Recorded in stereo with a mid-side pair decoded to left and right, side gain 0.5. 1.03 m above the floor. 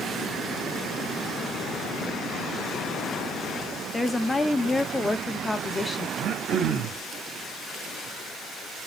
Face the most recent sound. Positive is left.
turn(degrees=-65)